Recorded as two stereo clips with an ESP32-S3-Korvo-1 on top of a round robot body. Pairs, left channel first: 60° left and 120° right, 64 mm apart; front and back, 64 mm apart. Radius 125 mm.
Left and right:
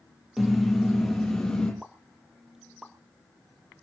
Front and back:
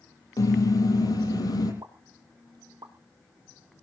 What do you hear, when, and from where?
0.4 s a car horn: 30° right, 7.5 m; by 1.7 s 20° right, 8 m
1.8 s a pop: 155° left, 1.2 m